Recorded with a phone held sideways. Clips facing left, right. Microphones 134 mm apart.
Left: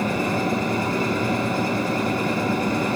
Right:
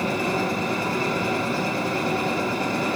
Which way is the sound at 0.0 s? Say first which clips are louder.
Left 1 dB; 45° left (ahead or behind).